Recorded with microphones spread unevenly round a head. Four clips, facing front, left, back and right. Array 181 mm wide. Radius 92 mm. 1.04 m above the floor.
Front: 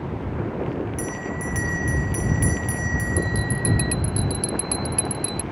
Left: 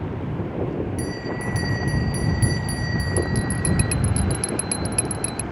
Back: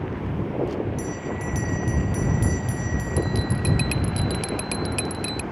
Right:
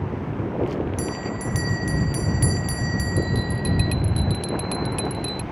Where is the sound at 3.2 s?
115° left.